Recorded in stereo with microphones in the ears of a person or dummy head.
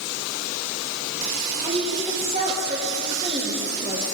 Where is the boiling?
No boiling in this recording.